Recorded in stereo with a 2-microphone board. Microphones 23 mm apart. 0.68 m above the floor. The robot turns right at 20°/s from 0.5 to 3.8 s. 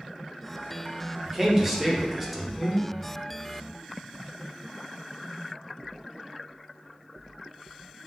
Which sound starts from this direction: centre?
A man speaking, at 1.2 s.